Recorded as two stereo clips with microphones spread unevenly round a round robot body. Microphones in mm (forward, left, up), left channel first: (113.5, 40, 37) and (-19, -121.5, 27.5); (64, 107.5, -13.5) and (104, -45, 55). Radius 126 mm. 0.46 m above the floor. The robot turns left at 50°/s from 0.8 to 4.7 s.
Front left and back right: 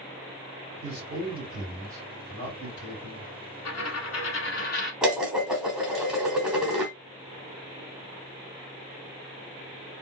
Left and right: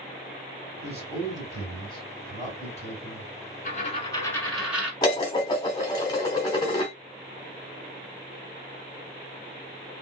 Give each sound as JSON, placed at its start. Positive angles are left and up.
{"t": 0.8, "sound": "a man speaking", "azimuth_deg": -160, "distance_m": 2.0}
{"t": 3.6, "sound": "a dropped coin", "azimuth_deg": 60, "distance_m": 1.4}
{"t": 5.0, "sound": "dishes clattering", "azimuth_deg": 145, "distance_m": 0.9}